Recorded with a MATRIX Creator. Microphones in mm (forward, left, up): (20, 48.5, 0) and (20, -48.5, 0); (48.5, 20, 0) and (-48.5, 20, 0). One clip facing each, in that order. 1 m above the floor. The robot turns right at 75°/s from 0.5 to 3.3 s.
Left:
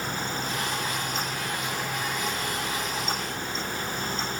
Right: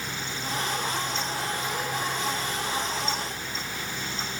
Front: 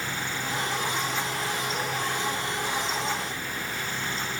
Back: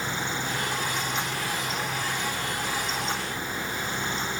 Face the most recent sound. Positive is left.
No sound to turn to.